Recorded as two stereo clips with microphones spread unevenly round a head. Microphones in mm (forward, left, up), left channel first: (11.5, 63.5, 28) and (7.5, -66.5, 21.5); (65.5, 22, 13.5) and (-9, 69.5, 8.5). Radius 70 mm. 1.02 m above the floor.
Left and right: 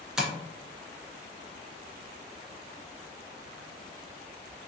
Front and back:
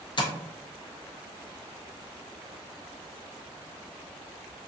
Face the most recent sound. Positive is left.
turn(degrees=-5)